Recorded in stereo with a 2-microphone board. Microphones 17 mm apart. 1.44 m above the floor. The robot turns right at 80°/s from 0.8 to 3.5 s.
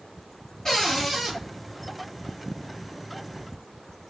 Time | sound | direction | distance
0.7 | a cupboard door | 140° left | 1.2 m